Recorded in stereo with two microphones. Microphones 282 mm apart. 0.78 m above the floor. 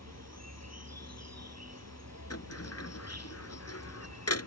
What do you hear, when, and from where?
0.0 s an insect: 65° right (ahead or behind)
2.3 s a sliding door: 60° left (ahead or behind)